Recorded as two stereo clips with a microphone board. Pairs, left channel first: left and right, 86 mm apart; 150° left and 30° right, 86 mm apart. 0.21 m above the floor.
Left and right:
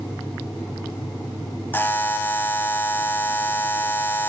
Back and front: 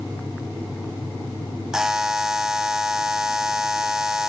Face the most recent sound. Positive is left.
turn(degrees=50)